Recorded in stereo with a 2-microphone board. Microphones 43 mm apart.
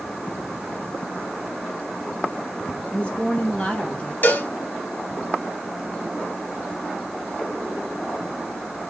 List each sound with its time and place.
2.9 s a woman speaking: 20° left (ahead or behind), 2 m
4.2 s a cowbell: 45° left (ahead or behind), 1.1 m